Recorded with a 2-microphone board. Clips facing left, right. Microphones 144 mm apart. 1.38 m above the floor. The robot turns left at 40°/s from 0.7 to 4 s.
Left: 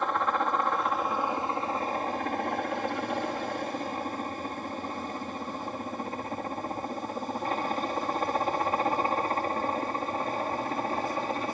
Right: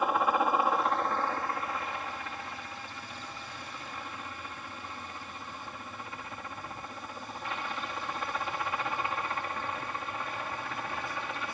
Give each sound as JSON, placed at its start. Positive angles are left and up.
{"t": 0.0, "sound": "a helicopter", "side_deg": -5}